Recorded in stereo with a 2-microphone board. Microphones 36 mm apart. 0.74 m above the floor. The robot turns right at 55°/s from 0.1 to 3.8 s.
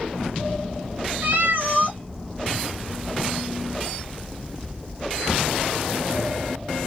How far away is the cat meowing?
About 1.4 m.